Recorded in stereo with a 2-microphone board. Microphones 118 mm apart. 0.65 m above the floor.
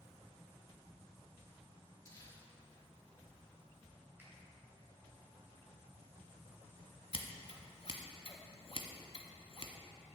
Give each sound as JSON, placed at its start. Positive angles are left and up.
{"t": 2.0, "sound": "crumpling", "side_deg": 25, "distance_m": 1.8}
{"t": 4.2, "sound": "a finger snap", "side_deg": -20, "distance_m": 2.0}
{"t": 7.1, "sound": "scissors", "side_deg": 55, "distance_m": 0.9}